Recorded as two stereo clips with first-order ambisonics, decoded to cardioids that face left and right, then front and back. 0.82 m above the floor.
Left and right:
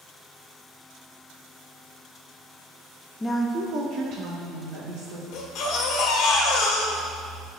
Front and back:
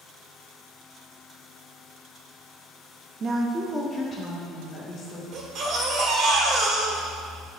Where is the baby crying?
130° left, 1.3 m.